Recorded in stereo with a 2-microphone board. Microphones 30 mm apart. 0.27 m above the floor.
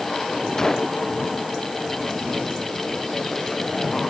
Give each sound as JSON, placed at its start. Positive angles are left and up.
{"t": 0.6, "sound": "a gunshot", "side_deg": 20}